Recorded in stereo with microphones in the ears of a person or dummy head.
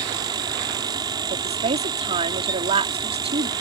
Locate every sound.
0.0 s a fan: 25° right (ahead or behind)
1.3 s a woman speaking: 25° right (ahead or behind)